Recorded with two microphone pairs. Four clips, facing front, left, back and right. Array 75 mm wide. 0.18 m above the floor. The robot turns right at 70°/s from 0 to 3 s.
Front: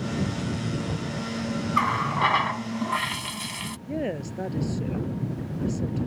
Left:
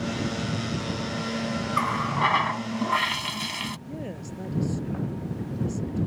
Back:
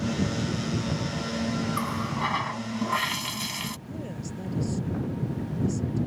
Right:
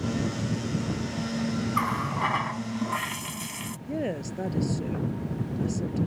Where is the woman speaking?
35° right.